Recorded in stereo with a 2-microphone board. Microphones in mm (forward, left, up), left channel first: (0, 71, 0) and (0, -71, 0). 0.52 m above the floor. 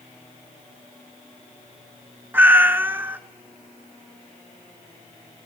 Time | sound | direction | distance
2.3 | a cat meowing | 15° right (ahead or behind) | 0.5 m